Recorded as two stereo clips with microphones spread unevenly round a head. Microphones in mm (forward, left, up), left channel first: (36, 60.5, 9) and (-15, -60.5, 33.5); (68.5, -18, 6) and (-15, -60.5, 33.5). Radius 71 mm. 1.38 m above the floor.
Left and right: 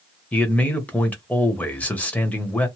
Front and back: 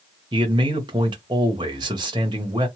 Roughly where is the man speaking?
Behind left.